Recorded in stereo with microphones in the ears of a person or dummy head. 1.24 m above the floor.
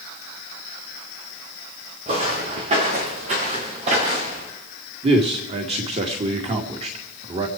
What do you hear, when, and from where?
2.1 s footsteps: 35° right (ahead or behind), 4 m; by 4.5 s 40° right (ahead or behind), 5.5 m
5.0 s a man speaking: 35° right (ahead or behind), 2 m